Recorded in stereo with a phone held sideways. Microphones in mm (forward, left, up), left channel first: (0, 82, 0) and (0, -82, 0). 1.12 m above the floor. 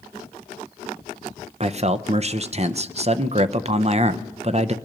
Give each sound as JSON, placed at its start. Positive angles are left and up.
{"t": 1.6, "sound": "a man speaking", "side_deg": -40, "distance_m": 0.6}